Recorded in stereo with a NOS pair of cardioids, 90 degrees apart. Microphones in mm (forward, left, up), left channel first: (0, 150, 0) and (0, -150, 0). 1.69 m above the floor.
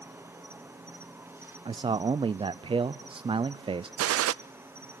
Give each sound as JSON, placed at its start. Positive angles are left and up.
{"t": 0.0, "sound": "an insect", "azimuth_deg": -10, "distance_m": 1.5}
{"t": 1.6, "sound": "a man speaking", "azimuth_deg": -20, "distance_m": 0.5}
{"t": 4.0, "sound": "a gunshot", "azimuth_deg": -55, "distance_m": 0.5}